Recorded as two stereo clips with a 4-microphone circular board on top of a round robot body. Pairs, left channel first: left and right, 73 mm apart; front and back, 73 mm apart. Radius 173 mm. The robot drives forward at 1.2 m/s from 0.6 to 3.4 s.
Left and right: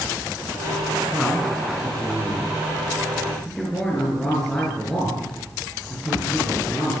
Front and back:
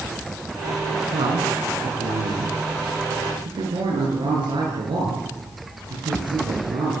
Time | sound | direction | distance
1.1 | a man speaking | 175° left | 5 m